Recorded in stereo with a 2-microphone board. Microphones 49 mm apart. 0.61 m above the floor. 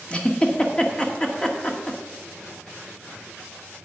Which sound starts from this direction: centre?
A giggle, at 0.1 s.